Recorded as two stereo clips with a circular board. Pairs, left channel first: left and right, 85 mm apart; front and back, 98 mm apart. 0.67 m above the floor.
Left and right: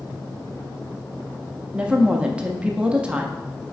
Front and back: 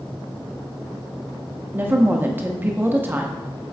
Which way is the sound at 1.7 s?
145° right.